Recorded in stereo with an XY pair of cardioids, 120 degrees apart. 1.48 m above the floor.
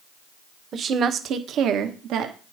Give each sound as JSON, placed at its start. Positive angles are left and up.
{"t": 0.7, "sound": "a woman speaking", "azimuth_deg": -45, "distance_m": 1.2}